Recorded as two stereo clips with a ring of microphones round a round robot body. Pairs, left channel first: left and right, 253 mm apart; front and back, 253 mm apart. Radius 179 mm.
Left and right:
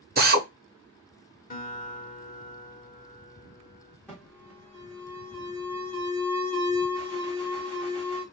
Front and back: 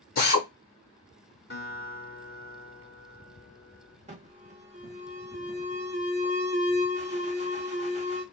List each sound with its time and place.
0.2 s a drill: 45° right, 1.0 m
1.5 s a guitar: 40° left, 1.5 m
4.1 s an alarm: 170° left, 1.2 m